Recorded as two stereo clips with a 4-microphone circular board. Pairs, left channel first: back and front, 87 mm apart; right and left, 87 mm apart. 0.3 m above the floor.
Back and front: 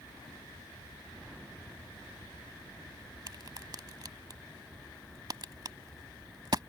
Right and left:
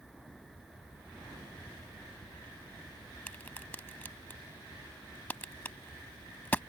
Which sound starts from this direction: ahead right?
A crack, at 3.3 s.